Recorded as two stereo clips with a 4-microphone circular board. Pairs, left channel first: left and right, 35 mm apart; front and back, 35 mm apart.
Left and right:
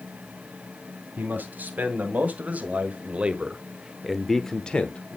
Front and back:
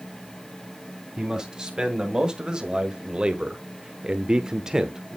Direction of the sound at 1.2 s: 110° right.